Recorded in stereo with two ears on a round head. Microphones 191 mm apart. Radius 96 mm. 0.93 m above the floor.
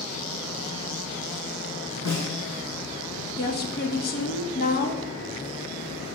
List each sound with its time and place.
2.0 s a snare drum: 90° left, 3.5 m
3.4 s a woman speaking: 45° left (ahead or behind), 0.8 m